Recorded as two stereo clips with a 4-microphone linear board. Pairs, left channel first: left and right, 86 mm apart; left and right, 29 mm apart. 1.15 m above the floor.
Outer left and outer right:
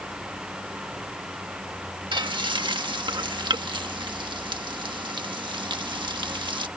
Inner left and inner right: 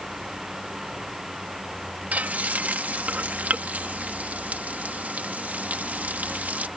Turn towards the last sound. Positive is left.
turn(degrees=-65)  # may be behind; listen again after turning